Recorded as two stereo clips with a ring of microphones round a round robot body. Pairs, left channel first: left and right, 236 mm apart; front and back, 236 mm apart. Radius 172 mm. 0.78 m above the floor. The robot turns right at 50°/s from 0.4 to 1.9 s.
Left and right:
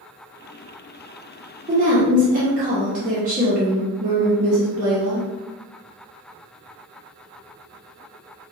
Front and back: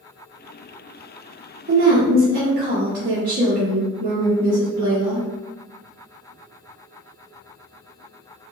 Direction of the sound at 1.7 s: 150° right.